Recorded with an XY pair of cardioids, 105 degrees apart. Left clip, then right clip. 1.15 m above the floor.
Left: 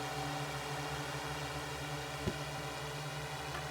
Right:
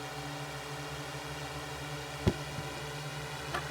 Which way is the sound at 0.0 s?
5° left.